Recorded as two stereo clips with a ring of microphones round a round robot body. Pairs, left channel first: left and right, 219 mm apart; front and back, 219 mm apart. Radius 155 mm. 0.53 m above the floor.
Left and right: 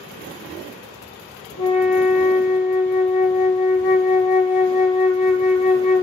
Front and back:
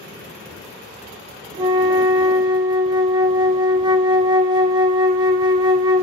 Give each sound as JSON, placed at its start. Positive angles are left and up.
{"t": 1.6, "sound": "a flute", "azimuth_deg": 110, "distance_m": 0.6}